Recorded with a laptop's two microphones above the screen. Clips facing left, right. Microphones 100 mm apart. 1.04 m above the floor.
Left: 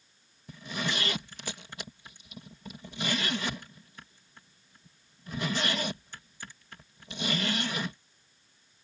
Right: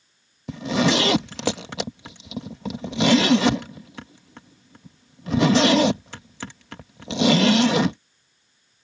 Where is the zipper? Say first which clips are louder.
Right 14 dB; 80° right.